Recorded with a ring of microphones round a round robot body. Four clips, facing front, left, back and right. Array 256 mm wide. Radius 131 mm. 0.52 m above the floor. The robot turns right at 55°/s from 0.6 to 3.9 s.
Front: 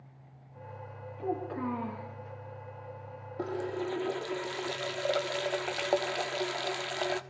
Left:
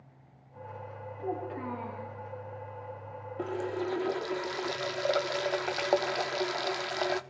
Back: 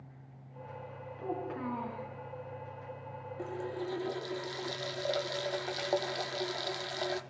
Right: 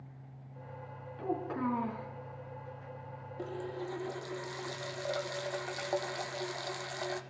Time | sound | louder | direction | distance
1.2 | a child speaking | right 1 dB, front 3 dB | 110° right | 6 m
3.4 | a running tap | left 7 dB, front 5 dB | 45° left | 0.6 m